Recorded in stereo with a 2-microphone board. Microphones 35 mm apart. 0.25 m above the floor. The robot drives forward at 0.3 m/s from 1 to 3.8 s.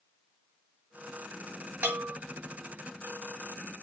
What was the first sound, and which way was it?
A bell, 60° right (ahead or behind).